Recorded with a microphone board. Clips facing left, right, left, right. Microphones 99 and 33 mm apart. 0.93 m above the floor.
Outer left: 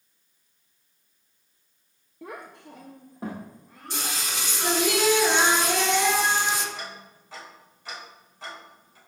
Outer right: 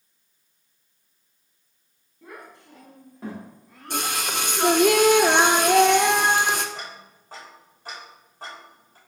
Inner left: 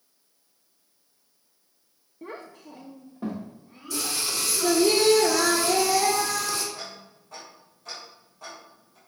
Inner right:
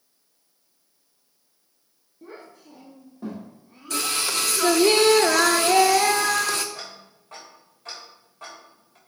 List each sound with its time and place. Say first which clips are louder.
2.2 s a child speaking: outer left 3 dB, inner left 3 dB; 85° left, 0.8 m; by 4.2 s centre (ahead or behind), 2 m
3.9 s singing: outer right 6 dB, inner right 4 dB; 55° right (ahead or behind), 0.6 m
6.8 s ticking: even, even; 45° right (ahead or behind), 3.5 m